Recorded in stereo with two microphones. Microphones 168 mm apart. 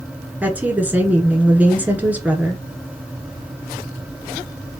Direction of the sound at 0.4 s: 10° right (ahead or behind).